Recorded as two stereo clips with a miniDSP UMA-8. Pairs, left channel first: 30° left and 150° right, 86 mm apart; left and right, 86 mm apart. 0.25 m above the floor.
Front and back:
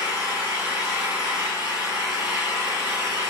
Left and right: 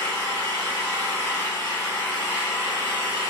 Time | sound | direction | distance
0.0 | an engine running | 140° left | 1.5 m